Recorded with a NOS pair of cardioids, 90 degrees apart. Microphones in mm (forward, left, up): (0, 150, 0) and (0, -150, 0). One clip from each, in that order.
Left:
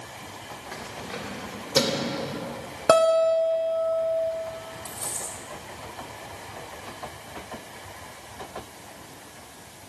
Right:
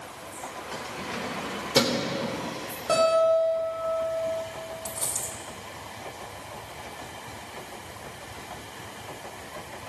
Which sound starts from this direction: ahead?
Keys jangling, at 0.7 s.